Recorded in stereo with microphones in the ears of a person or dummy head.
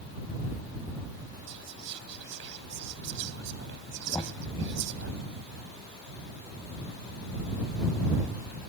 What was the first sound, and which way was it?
Whispering, 70° right (ahead or behind).